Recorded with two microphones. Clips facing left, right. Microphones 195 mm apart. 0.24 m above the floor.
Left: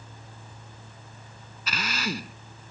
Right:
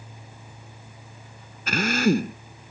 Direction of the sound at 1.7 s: 60° right (ahead or behind).